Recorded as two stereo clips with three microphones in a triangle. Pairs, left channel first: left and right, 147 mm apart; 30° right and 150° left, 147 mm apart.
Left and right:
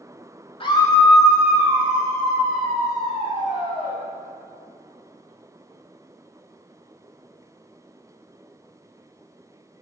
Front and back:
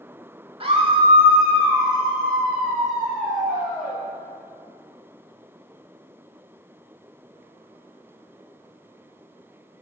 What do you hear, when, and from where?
0.6 s a scream: 120° left, 0.9 m; by 4.0 s 125° right, 3.5 m